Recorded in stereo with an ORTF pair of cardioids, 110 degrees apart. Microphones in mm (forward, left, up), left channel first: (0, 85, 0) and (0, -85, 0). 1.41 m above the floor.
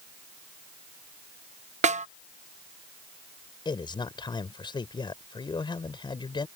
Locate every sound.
1.8 s a snare drum: 45° right
3.6 s a man speaking: 25° left